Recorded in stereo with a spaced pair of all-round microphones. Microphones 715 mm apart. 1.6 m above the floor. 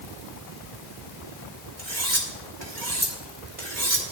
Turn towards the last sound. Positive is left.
turn(degrees=-70)  # may be behind; listen again after turning